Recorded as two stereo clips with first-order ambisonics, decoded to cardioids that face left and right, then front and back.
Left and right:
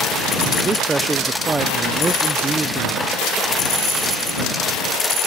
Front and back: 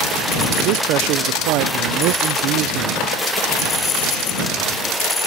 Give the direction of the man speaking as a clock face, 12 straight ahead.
5 o'clock.